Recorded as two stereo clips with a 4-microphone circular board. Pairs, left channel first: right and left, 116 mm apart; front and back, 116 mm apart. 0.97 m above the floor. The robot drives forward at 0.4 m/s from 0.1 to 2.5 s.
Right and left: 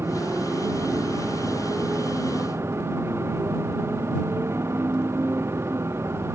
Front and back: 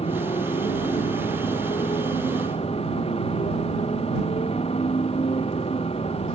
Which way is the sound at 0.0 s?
20° left.